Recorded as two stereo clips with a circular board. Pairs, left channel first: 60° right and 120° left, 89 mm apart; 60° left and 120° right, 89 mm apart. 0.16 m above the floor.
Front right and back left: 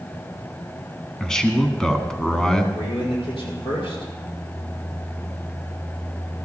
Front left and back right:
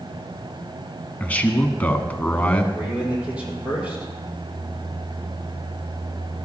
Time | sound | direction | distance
1.2 | a man speaking | 15° left | 1.1 m
2.7 | a man speaking | 45° right | 5.5 m